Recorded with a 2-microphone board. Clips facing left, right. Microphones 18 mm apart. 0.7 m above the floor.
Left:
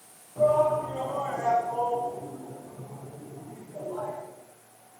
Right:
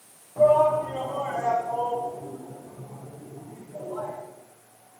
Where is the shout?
60° right (ahead or behind), 5.5 m; by 4.1 s 65° right (ahead or behind), 9 m.